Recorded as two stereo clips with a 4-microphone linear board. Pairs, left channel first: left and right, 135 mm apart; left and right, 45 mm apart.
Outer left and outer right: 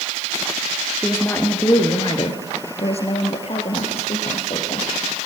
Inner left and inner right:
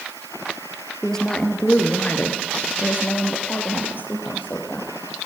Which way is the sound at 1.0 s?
15° left (ahead or behind).